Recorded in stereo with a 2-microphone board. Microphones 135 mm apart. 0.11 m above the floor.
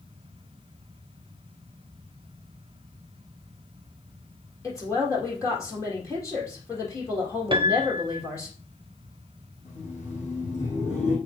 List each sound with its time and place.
4.6 s a woman speaking: 20° left (ahead or behind), 3.5 m
7.5 s a piano: 35° right (ahead or behind), 0.6 m
9.7 s laughter: 60° left (ahead or behind), 4.5 m